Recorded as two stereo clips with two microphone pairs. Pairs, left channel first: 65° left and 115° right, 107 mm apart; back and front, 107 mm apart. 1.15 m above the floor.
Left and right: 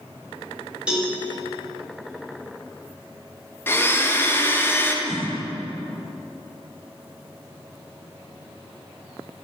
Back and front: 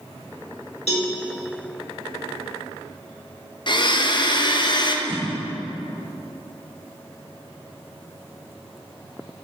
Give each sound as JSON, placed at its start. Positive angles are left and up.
{"t": 0.9, "sound": "a cowbell", "azimuth_deg": 165, "distance_m": 1.5}
{"t": 3.7, "sound": "a blender", "azimuth_deg": 135, "distance_m": 0.5}
{"t": 5.0, "sound": "a whoosh", "azimuth_deg": 130, "distance_m": 1.8}